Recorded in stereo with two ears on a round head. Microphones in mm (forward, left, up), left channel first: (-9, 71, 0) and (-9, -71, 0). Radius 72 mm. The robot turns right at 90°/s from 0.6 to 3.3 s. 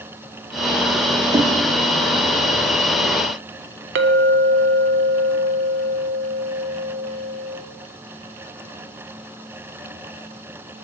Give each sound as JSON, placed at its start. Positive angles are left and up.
{"t": 1.3, "sound": "knocking", "side_deg": -30, "distance_m": 0.5}
{"t": 4.0, "sound": "a clink", "side_deg": -75, "distance_m": 0.6}